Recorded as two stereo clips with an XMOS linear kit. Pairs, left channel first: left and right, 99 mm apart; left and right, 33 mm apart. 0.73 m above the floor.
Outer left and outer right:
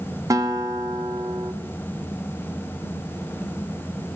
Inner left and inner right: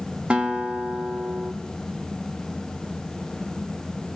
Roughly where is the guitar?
Right.